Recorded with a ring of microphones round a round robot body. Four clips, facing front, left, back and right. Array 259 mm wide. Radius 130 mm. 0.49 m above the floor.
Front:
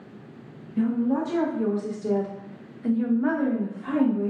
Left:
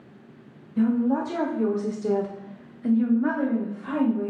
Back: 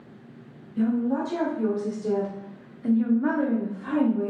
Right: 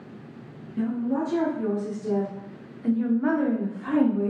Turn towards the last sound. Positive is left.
turn(degrees=-100)